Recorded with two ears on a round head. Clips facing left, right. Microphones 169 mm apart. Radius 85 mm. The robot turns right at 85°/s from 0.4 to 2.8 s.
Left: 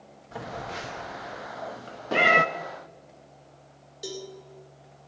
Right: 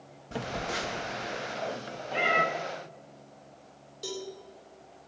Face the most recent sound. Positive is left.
turn(degrees=15)  # may be behind; listen again after turning